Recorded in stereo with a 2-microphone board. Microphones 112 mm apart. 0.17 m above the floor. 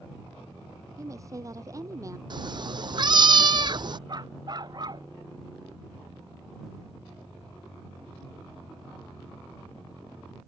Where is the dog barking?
40° right (ahead or behind).